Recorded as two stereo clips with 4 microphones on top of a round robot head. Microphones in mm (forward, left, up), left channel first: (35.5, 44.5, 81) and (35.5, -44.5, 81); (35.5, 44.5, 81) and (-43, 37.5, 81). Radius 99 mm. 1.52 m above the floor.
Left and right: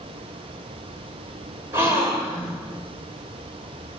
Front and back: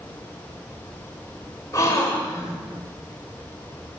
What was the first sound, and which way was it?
A gasp, 45° right.